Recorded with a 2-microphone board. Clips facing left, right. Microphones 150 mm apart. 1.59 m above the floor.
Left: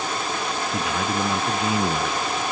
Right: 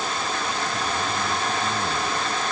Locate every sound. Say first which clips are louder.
0.7 s a man speaking: left 2 dB; 70° left (ahead or behind)